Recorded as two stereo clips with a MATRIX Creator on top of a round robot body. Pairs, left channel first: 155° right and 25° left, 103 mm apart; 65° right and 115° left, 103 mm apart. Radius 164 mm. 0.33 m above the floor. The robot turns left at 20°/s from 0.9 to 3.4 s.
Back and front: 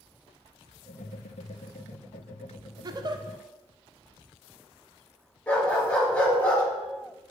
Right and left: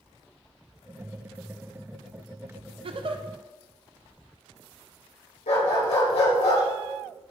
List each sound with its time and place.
2.8 s a giggle: 75° left, 0.5 m; by 3.2 s 70° left, 0.5 m
5.5 s a dog barking: 80° right, 4.5 m